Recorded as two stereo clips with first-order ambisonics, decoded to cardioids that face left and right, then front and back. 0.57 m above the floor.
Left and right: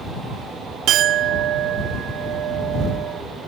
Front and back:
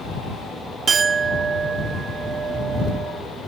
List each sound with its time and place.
0.9 s a clink: 120° right